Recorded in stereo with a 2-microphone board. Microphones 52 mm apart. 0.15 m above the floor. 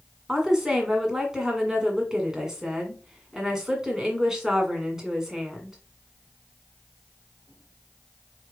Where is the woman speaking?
10° right (ahead or behind), 1.6 m.